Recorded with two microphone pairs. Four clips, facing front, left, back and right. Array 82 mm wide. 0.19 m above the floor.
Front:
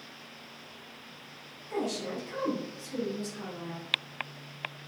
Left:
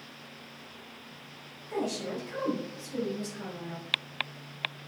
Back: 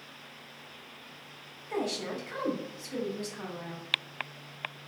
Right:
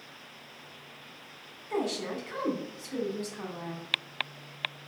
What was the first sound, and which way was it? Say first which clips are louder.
A woman speaking: right 1 dB, even; 110° right.